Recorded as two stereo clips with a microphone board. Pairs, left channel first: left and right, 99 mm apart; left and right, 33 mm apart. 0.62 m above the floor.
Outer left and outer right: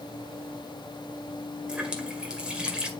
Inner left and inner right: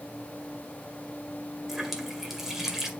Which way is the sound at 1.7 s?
10° right (ahead or behind).